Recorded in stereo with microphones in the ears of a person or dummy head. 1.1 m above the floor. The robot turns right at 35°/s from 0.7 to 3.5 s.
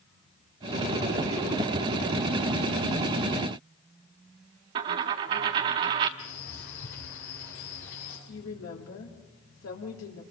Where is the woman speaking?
80° left, 3 m.